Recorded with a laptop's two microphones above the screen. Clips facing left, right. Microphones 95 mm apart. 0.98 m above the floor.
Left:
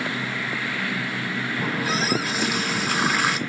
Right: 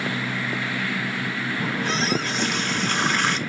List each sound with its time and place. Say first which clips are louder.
1.6 s a running tap: even; 5° left (ahead or behind), 1.0 m